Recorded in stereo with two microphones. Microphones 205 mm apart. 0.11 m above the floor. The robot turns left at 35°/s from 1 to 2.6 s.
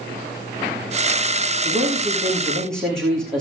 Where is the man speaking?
150° right, 6.5 m; by 3.4 s 175° left, 6.5 m.